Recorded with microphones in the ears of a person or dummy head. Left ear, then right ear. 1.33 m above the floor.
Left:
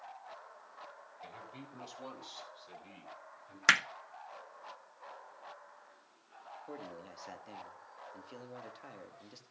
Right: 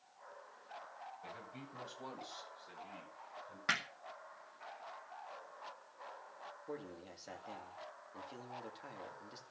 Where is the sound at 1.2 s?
35° left (ahead or behind), 7 m; by 3.6 s 40° left (ahead or behind), 10.5 m.